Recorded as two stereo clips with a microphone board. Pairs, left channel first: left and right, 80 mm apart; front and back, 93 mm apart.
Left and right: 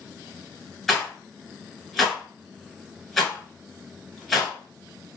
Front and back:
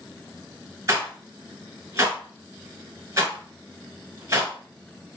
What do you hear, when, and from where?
0.9 s a rattle: 175° left, 1.2 m